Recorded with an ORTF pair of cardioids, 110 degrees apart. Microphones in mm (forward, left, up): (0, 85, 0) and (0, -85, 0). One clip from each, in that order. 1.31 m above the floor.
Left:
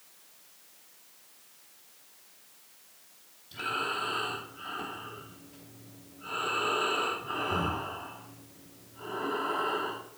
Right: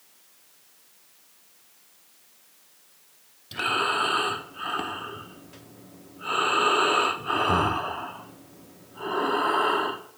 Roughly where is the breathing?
Ahead right.